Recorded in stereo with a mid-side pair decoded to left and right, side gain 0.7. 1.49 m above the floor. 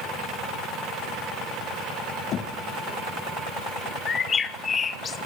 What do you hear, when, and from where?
2.3 s knocking: 45° left, 1.4 m
4.1 s a bird: 30° left, 1.2 m